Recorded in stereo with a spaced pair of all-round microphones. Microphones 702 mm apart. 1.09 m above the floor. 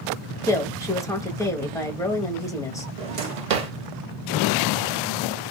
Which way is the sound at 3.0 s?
65° right (ahead or behind).